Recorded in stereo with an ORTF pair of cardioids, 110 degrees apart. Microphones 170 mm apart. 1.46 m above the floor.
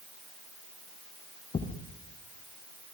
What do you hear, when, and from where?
1.5 s a thud: 30° left, 6 m